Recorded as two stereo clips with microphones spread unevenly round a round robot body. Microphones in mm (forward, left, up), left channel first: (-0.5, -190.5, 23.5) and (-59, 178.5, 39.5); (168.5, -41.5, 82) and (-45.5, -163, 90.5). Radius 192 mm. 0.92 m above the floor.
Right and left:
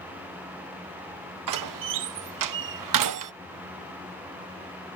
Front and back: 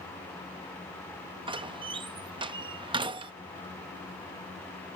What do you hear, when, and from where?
1.5 s a door slam: 135° left